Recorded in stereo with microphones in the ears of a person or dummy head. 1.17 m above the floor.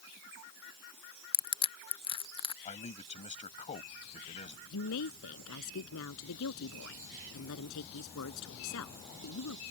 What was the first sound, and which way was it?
Crushing, 25° left (ahead or behind).